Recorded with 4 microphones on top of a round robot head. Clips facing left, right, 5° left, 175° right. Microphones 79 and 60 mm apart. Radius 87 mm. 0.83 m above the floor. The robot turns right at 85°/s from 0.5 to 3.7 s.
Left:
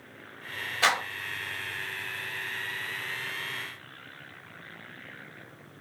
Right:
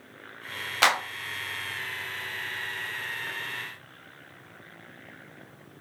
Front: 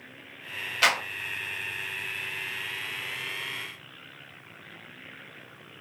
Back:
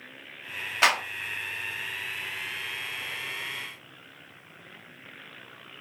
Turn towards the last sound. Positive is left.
turn(degrees=140)